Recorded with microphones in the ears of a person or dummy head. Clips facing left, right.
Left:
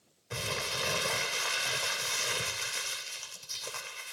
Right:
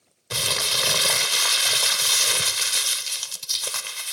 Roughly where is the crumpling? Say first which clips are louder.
Right 5 dB; right.